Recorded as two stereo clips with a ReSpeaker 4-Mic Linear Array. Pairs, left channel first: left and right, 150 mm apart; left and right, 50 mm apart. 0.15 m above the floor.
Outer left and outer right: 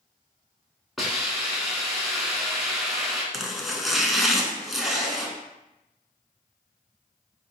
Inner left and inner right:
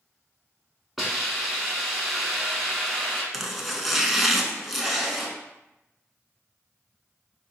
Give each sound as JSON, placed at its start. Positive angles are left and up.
{"t": 1.0, "sound": "a hiss", "side_deg": 0, "distance_m": 1.1}
{"t": 3.3, "sound": "chopping", "side_deg": 0, "distance_m": 0.6}